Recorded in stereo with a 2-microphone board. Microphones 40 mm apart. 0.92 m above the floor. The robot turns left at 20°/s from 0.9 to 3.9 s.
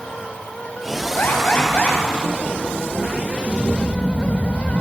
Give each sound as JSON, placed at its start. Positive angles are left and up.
{"t": 1.2, "sound": "an alarm", "side_deg": 55, "distance_m": 6.0}